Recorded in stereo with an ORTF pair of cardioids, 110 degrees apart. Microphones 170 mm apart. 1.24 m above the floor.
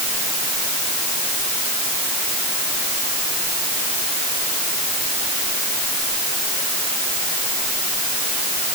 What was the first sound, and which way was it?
Only background noise.